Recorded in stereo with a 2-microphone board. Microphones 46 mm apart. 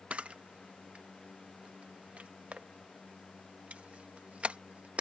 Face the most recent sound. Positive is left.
turn(degrees=-25)  # may be behind; listen again after turning